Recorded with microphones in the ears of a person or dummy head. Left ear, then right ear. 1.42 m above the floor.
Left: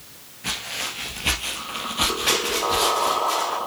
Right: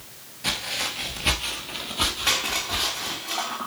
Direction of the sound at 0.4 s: 10° right (ahead or behind).